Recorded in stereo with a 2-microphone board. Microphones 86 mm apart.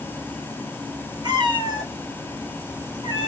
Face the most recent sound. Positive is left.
turn(degrees=-55)  # may be behind; listen again after turning